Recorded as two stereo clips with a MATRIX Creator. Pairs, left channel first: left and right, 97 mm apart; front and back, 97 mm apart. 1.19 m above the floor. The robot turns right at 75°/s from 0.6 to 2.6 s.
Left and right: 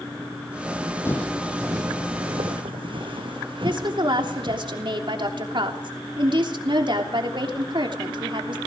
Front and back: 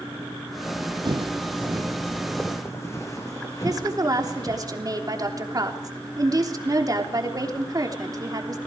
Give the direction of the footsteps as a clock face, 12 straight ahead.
7 o'clock.